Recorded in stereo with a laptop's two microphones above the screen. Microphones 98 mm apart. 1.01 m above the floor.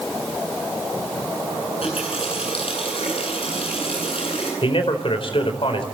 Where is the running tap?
70° left (ahead or behind), 9 m.